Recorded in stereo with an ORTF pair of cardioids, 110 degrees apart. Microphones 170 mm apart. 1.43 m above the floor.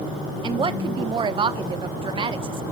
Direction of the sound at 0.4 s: 30° right.